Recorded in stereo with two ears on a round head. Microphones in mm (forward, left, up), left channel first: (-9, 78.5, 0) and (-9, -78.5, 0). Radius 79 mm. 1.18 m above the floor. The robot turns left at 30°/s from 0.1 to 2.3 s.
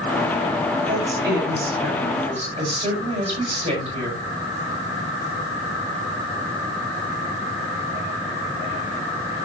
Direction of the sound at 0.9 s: 95° right.